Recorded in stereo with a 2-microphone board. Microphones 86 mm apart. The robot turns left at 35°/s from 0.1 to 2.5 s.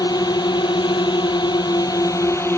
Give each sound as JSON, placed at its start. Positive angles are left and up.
{"t": 0.0, "sound": "a drone", "azimuth_deg": 120}